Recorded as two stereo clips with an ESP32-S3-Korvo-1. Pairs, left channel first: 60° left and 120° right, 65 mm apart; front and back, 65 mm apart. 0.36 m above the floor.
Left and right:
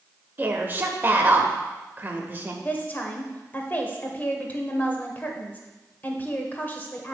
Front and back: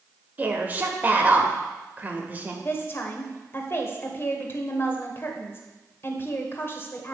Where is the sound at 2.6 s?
15° left, 1.0 m.